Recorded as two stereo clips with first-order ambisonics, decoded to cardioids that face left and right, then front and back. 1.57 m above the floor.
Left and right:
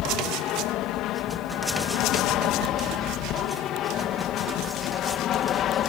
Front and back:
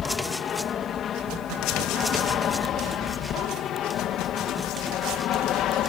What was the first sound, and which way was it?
An aircraft, 60° left.